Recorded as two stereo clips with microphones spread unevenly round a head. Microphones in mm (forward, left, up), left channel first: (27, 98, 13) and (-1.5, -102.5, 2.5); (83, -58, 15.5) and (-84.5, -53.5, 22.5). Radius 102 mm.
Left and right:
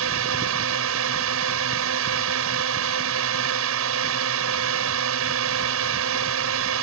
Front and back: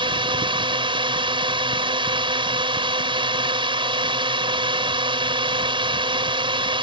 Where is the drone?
120° right.